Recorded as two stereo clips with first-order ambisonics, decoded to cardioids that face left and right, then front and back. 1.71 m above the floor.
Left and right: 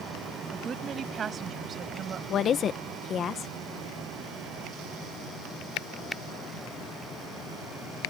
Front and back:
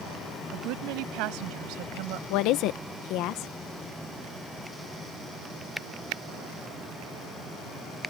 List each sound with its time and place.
0.5 s a woman speaking: 155° right; by 2.2 s 150° right
2.3 s a woman speaking: 30° left